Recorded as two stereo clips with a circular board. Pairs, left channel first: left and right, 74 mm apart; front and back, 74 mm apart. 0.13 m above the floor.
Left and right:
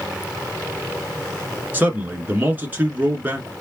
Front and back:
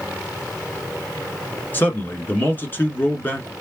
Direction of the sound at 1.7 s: 40° right.